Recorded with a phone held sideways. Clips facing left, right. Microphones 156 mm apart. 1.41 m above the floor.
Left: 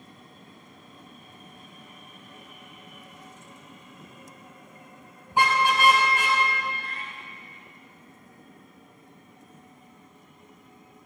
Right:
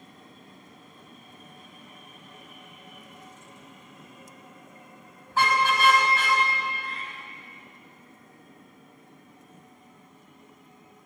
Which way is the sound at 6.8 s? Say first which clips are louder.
Right 1 dB; 45° left (ahead or behind).